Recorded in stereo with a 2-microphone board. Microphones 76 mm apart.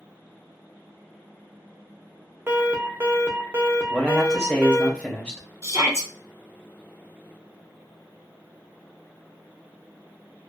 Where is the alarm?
30° right (ahead or behind), 0.7 m.